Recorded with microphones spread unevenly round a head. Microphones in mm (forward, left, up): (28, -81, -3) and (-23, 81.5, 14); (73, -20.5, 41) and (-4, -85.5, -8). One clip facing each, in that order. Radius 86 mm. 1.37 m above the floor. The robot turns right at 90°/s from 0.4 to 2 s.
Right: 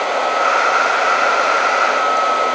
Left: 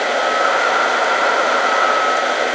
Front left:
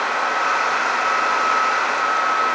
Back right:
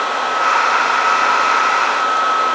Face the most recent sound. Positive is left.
No sound to turn to.